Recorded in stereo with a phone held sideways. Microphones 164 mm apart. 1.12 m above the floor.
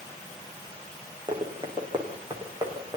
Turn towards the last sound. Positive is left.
turn(degrees=-25)  # may be behind; listen again after turning